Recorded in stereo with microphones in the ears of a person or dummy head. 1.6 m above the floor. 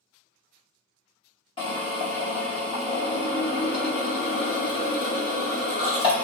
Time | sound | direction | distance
1.6 | a drill | 30° left (ahead or behind) | 1.5 m